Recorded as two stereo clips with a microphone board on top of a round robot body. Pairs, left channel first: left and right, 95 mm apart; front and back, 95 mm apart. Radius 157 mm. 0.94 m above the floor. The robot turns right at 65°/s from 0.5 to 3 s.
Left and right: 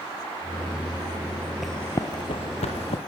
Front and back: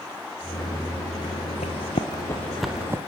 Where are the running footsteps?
5° right, 1.3 m; by 3.0 s 120° left, 1.8 m.